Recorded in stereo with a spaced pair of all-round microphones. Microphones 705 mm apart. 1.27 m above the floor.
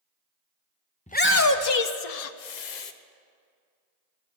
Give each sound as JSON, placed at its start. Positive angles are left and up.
{"t": 1.1, "sound": "a shout", "side_deg": 10, "distance_m": 0.6}